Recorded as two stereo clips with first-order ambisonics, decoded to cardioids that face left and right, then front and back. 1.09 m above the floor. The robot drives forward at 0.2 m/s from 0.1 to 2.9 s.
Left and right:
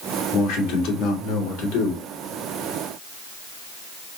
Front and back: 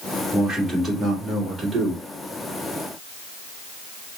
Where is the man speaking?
95° left, 2 m; by 2.0 s 105° left, 2 m.